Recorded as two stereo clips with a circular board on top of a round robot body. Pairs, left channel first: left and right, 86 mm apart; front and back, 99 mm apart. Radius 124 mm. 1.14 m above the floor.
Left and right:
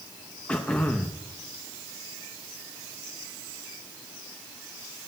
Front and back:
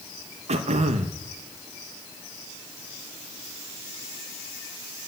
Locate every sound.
0.5 s throat clearing: 170° left, 0.8 m